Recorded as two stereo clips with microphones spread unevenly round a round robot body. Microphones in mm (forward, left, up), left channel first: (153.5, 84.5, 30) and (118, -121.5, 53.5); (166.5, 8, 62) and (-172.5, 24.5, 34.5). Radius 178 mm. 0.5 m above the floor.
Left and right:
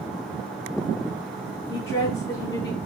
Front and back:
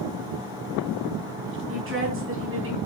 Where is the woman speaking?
125° left, 4 m.